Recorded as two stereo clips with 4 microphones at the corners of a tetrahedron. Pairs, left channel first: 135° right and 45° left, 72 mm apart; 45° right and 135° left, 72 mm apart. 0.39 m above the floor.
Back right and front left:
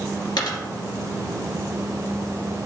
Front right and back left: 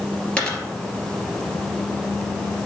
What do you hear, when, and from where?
0.4 s a dropped coin: 120° right, 2.5 m